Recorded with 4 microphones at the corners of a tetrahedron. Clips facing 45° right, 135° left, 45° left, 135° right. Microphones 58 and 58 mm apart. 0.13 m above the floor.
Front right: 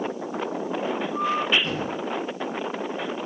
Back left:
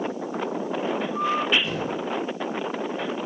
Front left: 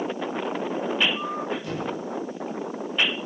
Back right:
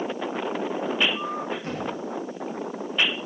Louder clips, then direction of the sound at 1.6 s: Even, even; 85° right.